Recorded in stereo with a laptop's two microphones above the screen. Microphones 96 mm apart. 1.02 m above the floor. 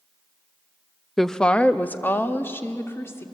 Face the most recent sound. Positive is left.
turn(degrees=30)  # may be behind; listen again after turning